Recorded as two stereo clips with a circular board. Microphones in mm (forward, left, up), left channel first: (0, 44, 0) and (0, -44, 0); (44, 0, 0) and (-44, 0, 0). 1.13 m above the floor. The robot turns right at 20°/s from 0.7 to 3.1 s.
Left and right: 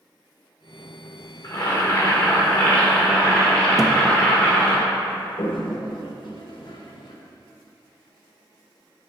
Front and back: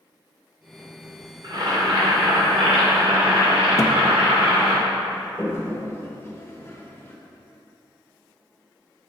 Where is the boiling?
140° left, 2 m; by 4.8 s 170° left, 2 m.